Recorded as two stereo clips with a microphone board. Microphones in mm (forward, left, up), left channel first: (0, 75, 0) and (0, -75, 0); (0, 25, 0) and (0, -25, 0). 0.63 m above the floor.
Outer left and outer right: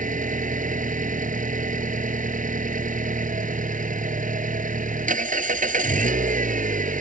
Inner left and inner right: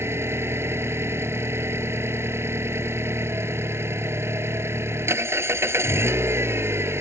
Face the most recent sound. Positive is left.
turn(degrees=-70)  # may be behind; listen again after turning